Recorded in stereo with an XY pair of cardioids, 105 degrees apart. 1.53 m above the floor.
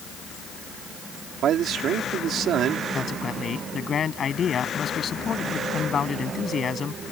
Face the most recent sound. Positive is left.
turn(degrees=45)